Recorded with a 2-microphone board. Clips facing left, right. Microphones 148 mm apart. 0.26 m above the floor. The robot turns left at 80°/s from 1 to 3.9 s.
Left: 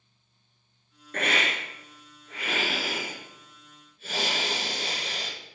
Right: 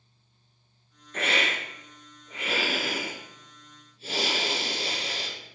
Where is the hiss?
75° left, 1.8 m; by 5.3 s 145° right, 1.8 m.